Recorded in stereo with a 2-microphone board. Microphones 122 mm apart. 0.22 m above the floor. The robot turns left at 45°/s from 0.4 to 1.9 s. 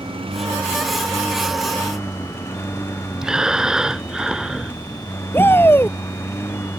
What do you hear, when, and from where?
0.0 s a lawn mower: 130° right; by 6.8 s 160° left
3.2 s breathing: 5° right (ahead or behind)
5.3 s a shout: 20° left (ahead or behind)